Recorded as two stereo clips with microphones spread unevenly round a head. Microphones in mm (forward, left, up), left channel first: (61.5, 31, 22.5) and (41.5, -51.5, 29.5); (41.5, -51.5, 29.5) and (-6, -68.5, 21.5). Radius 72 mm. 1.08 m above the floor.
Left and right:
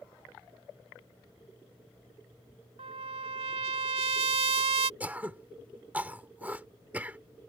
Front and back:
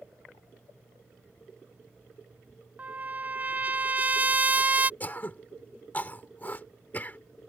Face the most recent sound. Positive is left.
turn(degrees=-30)